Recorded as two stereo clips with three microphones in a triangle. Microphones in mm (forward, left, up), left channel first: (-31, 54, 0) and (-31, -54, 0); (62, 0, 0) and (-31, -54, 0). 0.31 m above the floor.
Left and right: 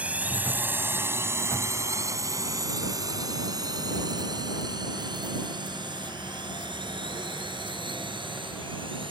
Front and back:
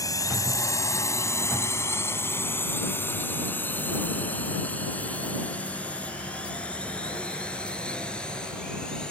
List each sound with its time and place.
0.0 s a drone: 15° right; by 9.1 s 50° right